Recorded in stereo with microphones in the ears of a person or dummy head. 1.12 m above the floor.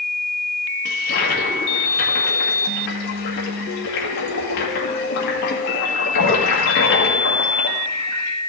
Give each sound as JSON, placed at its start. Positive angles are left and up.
{"t": 0.8, "sound": "a toilet flushing", "side_deg": 70, "distance_m": 1.9}